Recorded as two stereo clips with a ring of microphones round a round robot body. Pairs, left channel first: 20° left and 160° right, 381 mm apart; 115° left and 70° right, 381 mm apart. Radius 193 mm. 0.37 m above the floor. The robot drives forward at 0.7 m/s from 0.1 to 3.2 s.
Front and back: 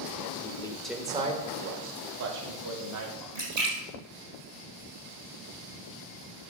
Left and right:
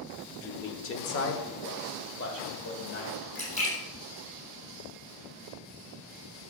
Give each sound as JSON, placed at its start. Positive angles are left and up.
{"t": 0.4, "sound": "a man speaking", "azimuth_deg": 70, "distance_m": 0.9}
{"t": 3.4, "sound": "a splash", "azimuth_deg": -175, "distance_m": 4.0}